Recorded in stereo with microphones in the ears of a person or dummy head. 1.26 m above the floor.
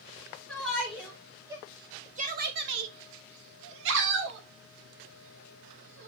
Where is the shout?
5° left (ahead or behind), 3 m; by 6.1 s 50° right (ahead or behind), 4.5 m.